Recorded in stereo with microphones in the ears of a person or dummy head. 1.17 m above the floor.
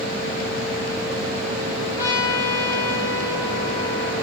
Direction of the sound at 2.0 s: 15° left (ahead or behind).